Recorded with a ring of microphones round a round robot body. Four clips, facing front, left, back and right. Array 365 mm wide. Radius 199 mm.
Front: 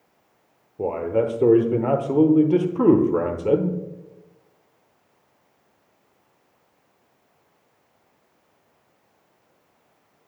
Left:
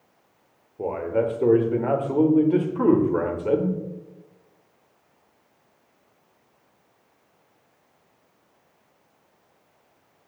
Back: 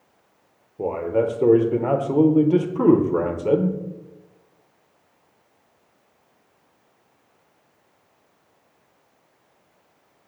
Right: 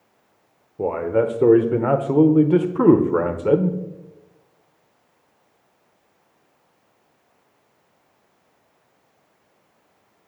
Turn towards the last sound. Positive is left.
turn(degrees=-75)